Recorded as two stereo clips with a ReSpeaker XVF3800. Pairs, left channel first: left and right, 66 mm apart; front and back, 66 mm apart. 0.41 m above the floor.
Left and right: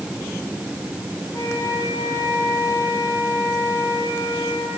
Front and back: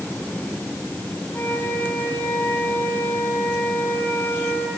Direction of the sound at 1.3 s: 55° left.